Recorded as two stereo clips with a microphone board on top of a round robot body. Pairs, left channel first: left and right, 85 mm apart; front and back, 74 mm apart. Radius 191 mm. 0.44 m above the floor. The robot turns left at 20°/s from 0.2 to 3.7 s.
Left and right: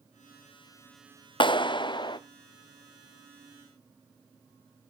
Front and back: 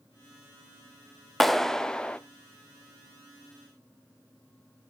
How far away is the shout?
I don't hear a shout.